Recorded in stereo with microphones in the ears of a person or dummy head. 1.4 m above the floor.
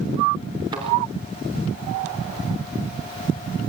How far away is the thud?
About 5 m.